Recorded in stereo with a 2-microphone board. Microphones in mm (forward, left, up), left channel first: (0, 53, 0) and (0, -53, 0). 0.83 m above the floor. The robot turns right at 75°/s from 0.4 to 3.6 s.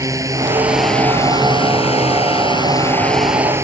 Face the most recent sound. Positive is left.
turn(degrees=-155)